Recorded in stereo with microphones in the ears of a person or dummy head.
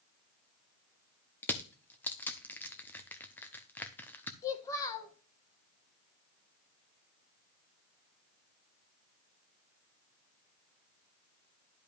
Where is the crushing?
15° left (ahead or behind), 0.8 m.